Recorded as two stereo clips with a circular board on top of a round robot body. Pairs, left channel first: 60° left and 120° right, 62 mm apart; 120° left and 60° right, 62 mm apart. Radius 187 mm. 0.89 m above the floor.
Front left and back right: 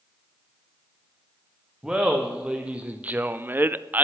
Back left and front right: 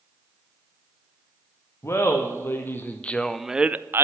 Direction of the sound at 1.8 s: 160° left.